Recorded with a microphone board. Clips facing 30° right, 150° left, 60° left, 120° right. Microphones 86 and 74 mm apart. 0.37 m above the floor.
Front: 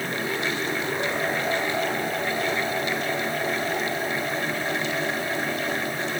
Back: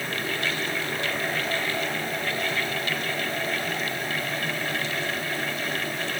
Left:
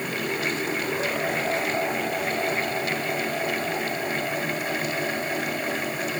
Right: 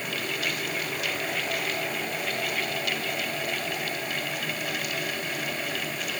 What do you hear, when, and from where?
Only background noise.